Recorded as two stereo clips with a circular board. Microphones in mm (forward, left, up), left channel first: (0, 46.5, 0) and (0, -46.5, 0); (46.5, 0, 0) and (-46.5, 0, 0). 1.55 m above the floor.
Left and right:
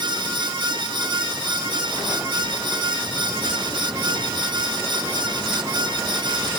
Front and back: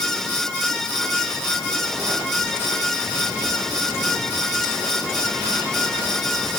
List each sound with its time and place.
Only background noise.